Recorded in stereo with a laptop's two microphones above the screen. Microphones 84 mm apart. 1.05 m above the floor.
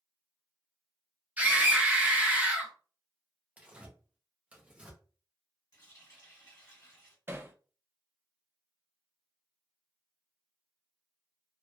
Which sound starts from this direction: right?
Hammering, at 7.3 s.